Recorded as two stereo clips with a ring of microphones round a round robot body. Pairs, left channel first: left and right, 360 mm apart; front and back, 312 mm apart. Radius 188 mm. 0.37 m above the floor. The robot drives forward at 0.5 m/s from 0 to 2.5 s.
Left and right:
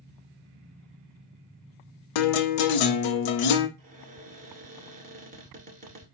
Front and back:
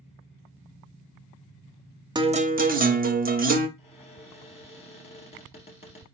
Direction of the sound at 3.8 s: 50° right.